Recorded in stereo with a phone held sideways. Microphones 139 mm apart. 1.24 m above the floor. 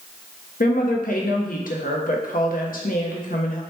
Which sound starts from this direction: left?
A woman speaking, at 0.6 s.